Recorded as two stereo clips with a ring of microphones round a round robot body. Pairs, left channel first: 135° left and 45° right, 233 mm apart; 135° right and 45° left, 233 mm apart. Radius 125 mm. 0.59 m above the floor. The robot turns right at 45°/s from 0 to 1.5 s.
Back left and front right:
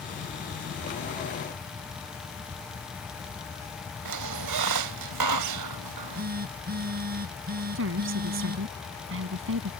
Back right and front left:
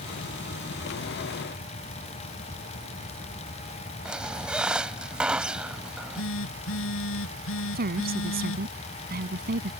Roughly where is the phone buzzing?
Right.